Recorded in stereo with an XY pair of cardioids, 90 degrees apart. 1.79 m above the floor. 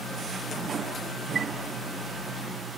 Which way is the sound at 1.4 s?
50° right.